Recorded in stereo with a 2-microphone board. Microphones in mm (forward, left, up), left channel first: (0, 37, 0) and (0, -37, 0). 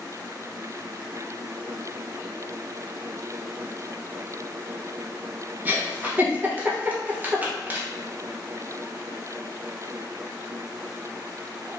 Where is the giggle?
25° right (ahead or behind), 1.0 m.